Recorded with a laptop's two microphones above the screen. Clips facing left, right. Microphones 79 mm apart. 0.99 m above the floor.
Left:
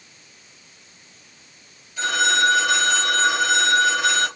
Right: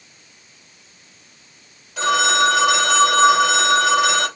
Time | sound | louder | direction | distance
2.0 | a phone ringing | right 3 dB | 80° right | 2 m